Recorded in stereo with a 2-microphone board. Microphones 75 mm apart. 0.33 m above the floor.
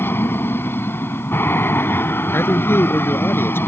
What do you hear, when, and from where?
0.0 s an aircraft: 30° left (ahead or behind)
2.3 s a man speaking: 30° left (ahead or behind)